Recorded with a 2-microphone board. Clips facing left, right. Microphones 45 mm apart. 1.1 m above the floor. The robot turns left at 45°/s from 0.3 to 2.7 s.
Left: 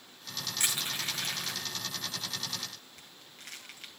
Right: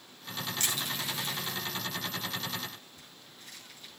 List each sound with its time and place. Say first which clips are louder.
0.6 s crushing: left 2 dB; 15° left (ahead or behind), 3 m; by 3.9 s 65° left (ahead or behind), 3 m